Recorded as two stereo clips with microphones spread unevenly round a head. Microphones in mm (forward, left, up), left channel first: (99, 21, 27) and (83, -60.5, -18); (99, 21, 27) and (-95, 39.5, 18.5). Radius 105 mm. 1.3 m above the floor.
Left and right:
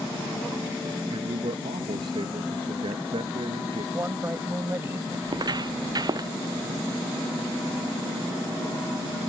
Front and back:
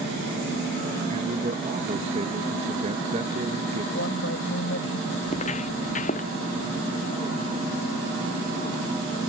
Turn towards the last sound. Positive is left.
turn(degrees=-60)